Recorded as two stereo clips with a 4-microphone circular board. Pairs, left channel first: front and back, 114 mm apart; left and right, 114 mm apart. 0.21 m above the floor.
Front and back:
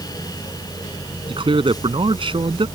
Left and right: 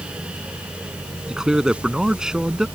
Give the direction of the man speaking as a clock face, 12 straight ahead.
6 o'clock.